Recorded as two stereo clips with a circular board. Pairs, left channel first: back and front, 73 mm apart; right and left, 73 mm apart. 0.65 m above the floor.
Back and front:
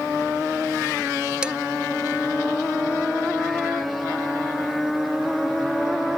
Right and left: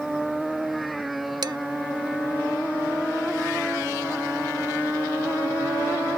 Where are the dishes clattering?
75° left.